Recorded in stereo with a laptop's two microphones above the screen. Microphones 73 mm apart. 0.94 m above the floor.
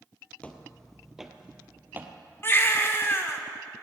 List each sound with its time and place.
0.4 s footsteps: 15° left (ahead or behind), 1.1 m; by 2.1 s 30° right (ahead or behind), 1.3 m
2.4 s a baby crying: 30° left (ahead or behind), 0.8 m